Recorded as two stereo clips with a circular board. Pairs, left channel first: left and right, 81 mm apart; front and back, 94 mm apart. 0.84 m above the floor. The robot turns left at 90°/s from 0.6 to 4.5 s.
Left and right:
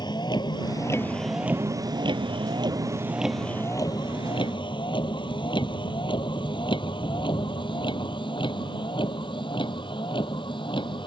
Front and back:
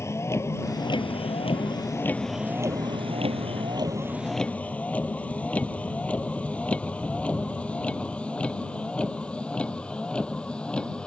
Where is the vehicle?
60° left; by 11.1 s 80° left.